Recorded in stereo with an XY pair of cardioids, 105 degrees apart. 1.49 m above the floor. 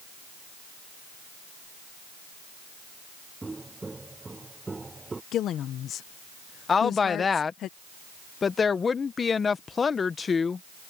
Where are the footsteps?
15° right; by 5.2 s 20° right.